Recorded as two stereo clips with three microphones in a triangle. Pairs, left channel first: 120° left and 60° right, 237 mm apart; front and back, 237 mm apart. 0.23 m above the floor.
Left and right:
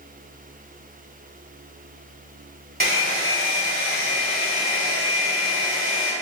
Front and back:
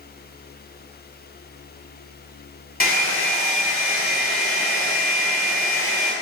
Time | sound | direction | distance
2.8 | a hair dryer | 35° right | 0.8 m